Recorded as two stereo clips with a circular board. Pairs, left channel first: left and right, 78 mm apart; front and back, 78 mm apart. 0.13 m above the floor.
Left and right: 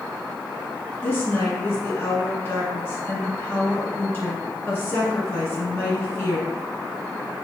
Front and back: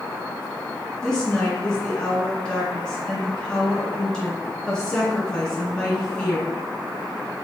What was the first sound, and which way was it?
A woman speaking, 65° left.